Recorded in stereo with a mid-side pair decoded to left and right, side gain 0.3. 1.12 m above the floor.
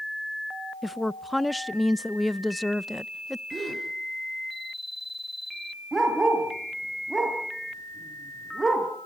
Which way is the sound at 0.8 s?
5° left.